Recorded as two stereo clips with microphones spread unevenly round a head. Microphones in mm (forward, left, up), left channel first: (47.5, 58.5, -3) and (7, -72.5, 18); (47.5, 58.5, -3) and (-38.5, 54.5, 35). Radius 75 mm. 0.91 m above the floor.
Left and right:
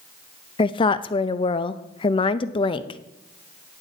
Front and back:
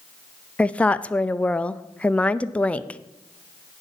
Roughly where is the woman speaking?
Ahead left.